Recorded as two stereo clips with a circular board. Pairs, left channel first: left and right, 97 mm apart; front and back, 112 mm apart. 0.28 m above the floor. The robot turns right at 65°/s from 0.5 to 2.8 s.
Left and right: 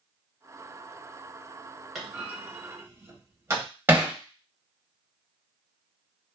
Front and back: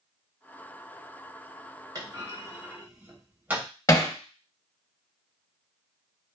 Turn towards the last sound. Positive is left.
turn(degrees=-35)